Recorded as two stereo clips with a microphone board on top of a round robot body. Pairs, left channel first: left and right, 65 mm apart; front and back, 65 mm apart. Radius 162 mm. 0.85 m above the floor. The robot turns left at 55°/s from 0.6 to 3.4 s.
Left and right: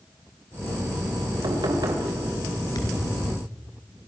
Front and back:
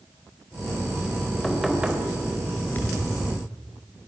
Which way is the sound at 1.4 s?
80° right.